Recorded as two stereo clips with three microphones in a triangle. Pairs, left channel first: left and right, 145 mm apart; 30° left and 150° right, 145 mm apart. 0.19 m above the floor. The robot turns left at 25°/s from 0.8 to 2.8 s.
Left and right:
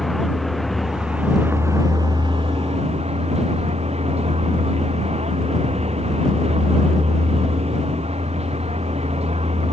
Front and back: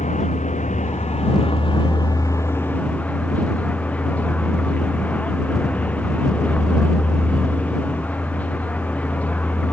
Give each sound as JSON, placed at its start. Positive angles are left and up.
{"t": 0.0, "sound": "a vehicle", "azimuth_deg": 0}